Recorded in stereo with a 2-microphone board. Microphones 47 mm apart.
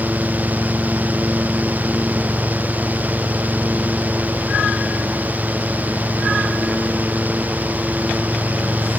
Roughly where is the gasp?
No gasp in this recording.